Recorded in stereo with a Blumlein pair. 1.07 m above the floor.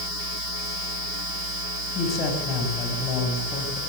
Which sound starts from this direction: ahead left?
A man speaking, at 1.9 s.